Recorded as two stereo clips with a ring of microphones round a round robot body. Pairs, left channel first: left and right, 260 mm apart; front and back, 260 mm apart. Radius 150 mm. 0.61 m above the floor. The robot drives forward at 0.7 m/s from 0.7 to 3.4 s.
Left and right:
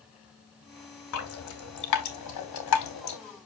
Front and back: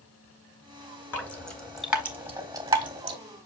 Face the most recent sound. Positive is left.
turn(degrees=115)